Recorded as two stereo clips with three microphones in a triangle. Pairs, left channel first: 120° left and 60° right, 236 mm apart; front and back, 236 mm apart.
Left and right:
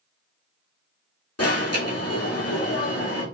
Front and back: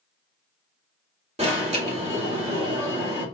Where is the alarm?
120° left, 1.7 m.